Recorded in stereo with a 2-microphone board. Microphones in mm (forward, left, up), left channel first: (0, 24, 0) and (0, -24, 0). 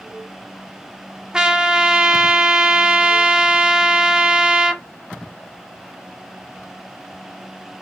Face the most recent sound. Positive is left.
turn(degrees=-15)  # may be behind; listen again after turning